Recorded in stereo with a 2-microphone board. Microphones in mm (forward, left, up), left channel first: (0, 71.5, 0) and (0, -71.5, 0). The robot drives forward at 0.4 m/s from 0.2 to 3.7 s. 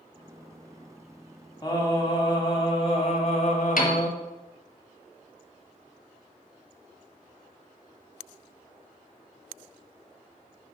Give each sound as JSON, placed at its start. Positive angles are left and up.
{"t": 1.6, "sound": "singing", "side_deg": 30, "distance_m": 1.5}
{"t": 3.8, "sound": "a piano", "side_deg": 70, "distance_m": 1.3}